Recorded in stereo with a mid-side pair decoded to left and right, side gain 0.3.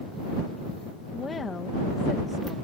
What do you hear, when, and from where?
1.1 s a woman speaking: 45° left